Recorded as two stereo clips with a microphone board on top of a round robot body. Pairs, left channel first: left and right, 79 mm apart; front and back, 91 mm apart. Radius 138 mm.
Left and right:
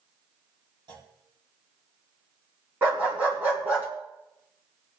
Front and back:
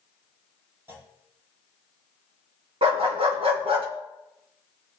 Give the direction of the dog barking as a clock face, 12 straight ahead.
5 o'clock.